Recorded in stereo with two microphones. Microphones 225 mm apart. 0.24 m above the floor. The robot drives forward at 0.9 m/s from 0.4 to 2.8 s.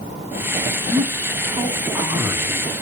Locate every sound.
0.9 s a man speaking: 20° right (ahead or behind), 1.7 m; by 2.7 s 10° right (ahead or behind), 3 m